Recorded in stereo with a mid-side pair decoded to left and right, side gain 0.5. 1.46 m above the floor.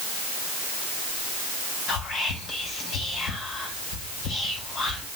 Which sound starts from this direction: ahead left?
Whispering, at 1.9 s.